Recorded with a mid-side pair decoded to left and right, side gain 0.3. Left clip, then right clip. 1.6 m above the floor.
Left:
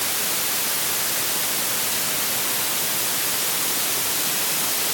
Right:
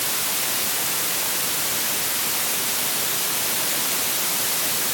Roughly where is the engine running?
No engine running in this recording.